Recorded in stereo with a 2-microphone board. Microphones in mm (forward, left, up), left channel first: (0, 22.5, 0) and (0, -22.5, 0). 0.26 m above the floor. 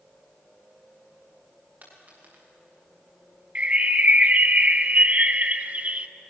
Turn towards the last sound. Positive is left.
turn(degrees=-35)  # may be behind; listen again after turning